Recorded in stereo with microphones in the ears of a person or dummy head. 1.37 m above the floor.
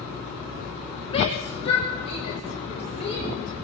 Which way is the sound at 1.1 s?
30° left (ahead or behind).